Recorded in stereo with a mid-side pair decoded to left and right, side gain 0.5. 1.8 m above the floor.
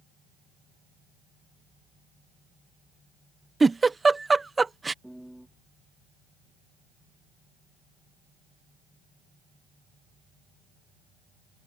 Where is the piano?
Straight ahead.